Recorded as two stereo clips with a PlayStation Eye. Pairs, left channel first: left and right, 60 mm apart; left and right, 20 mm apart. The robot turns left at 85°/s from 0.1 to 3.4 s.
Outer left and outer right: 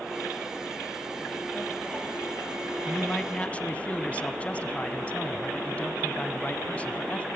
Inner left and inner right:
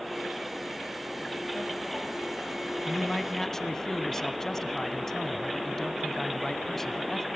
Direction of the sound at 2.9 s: Straight behind.